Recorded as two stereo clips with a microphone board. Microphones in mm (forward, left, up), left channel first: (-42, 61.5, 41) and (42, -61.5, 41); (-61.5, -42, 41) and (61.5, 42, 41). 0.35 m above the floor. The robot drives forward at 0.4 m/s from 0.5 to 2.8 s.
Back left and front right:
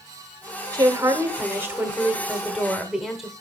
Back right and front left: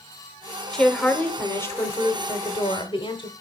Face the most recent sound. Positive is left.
turn(degrees=-145)